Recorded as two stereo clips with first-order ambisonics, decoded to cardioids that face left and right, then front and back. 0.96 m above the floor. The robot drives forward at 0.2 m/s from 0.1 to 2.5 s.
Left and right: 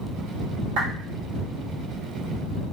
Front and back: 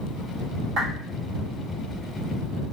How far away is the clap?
About 1.3 m.